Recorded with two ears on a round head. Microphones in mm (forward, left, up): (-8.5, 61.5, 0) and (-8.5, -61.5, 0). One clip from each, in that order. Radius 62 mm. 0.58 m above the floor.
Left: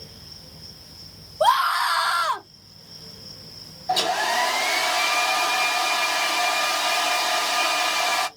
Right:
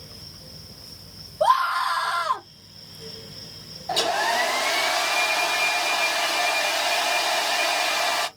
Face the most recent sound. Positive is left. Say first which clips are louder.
# left 1 dB
turn(degrees=10)  # may be behind; listen again after turning